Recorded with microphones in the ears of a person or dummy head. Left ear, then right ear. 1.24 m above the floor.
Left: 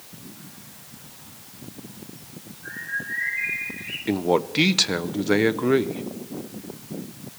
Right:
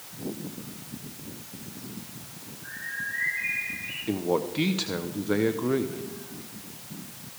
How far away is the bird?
About 9.5 m.